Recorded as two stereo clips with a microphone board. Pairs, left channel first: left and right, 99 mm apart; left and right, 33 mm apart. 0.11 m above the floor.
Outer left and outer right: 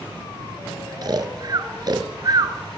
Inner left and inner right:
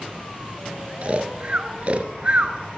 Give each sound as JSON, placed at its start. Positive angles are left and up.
{"t": 1.0, "sound": "snoring", "side_deg": -45, "distance_m": 0.6}